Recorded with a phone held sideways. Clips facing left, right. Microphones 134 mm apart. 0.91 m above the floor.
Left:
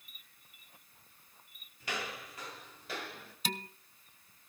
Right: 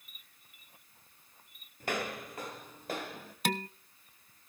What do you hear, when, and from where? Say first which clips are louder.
1.8 s footsteps: right 5 dB; 50° right (ahead or behind), 1.3 m; by 3.4 s 45° right (ahead or behind), 2.5 m
3.5 s dishes clattering: right 7 dB; 65° right (ahead or behind), 0.6 m